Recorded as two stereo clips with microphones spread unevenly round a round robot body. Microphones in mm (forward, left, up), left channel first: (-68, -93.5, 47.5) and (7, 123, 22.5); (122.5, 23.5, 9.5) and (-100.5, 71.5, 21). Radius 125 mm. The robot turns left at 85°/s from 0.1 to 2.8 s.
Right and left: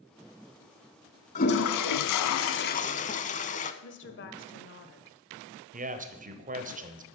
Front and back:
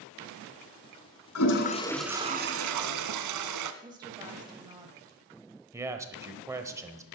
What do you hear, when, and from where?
1.4 s a toilet flushing: 45° right, 0.8 m; by 3.7 s 170° right, 0.8 m
3.8 s a woman speaking: 120° right, 1.4 m
5.7 s a man speaking: 90° left, 1.1 m